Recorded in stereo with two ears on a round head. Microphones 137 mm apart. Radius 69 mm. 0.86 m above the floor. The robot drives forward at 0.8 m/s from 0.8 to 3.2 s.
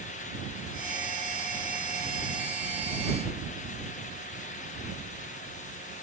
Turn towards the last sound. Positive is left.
No sound to turn to.